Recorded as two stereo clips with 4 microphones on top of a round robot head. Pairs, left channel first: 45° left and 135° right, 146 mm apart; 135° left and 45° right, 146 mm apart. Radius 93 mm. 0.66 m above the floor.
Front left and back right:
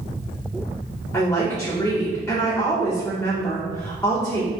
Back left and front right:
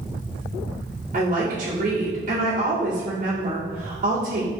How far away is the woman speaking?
About 2 m.